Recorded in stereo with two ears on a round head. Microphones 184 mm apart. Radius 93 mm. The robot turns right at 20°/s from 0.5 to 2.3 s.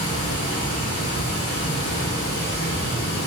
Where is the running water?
80° left, 1.0 m; by 3.3 s 115° left, 1.0 m.